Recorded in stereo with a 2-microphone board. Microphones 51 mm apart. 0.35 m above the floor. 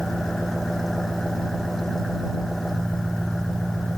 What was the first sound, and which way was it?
An engine running, 5° left (ahead or behind).